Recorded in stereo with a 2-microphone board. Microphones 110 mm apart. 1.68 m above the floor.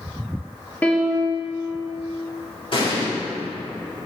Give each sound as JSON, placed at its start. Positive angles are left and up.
{"t": 0.8, "sound": "a piano", "side_deg": 15, "distance_m": 1.2}
{"t": 2.7, "sound": "an explosion", "side_deg": 55, "distance_m": 2.5}